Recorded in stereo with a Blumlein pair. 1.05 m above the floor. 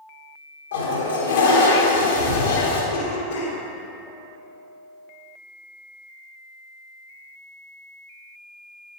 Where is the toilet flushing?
65° left, 1.6 m.